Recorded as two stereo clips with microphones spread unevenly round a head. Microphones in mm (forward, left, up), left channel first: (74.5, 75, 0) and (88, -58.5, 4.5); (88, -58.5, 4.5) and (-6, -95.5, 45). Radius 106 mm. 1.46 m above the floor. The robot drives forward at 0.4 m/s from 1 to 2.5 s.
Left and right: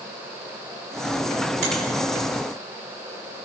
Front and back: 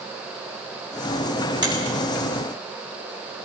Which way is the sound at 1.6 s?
115° right.